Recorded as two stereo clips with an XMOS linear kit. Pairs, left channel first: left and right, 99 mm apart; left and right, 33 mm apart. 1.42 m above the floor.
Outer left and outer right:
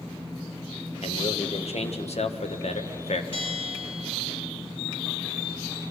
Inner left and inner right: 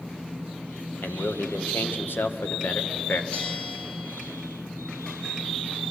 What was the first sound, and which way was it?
A man speaking, 85° left.